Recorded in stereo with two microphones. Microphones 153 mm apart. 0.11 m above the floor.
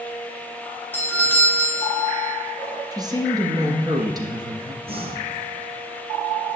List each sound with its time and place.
0.9 s a doorbell: 10° left (ahead or behind), 1.8 m
2.9 s a woman speaking: 25° right (ahead or behind), 1.7 m
4.8 s breathing: 40° right (ahead or behind), 1.6 m